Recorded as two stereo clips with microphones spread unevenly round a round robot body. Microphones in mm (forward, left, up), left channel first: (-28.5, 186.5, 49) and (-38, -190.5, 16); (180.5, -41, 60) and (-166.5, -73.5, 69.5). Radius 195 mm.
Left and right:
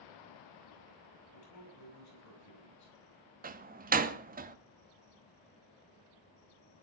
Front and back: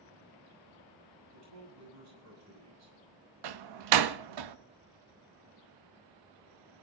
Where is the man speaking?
135° left, 7 m.